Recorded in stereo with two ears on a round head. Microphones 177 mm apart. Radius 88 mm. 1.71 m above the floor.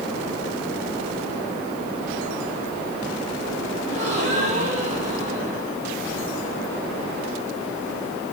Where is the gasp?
40° right (ahead or behind), 4 m.